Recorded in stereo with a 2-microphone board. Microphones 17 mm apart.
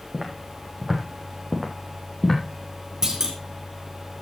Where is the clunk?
40° right (ahead or behind), 3 m.